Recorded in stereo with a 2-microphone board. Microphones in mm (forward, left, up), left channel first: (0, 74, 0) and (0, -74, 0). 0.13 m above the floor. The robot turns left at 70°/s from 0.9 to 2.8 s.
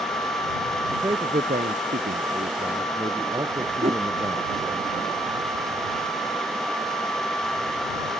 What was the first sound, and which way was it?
A man speaking, 15° right.